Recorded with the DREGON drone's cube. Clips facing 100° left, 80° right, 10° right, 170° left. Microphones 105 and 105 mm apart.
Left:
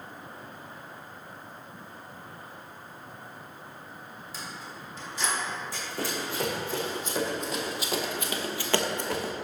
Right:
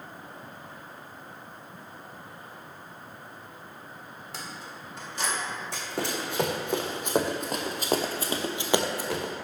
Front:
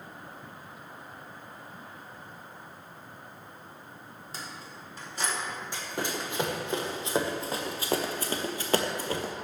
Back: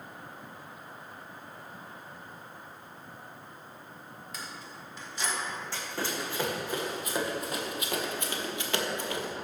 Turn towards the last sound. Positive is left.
turn(degrees=20)